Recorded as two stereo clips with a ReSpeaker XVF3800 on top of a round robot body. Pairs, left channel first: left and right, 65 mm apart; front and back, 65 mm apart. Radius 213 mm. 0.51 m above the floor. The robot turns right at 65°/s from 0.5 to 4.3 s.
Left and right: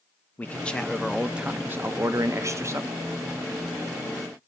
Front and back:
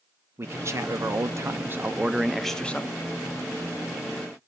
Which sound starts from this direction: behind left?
A man speaking, at 0.4 s.